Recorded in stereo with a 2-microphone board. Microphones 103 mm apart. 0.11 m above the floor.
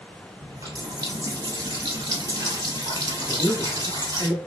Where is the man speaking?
5° right (ahead or behind), 1.4 m.